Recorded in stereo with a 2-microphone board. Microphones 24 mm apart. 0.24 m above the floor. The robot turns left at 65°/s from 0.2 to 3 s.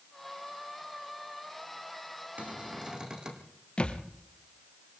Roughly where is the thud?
Left.